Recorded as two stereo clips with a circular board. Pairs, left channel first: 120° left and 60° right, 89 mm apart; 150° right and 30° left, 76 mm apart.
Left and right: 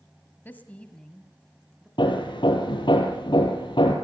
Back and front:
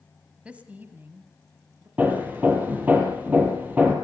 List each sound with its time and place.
0.5 s a woman speaking: 85° left, 1.5 m; by 1.9 s 25° left, 1.8 m
2.0 s hammering: 95° left, 4.5 m